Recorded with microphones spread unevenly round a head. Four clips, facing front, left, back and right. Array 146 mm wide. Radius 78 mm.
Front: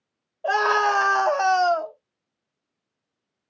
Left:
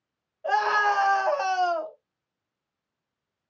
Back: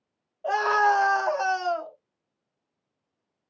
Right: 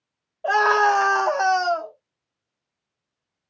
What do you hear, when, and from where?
0.4 s a scream: 35° right, 2 m; by 1.9 s 5° left, 1.3 m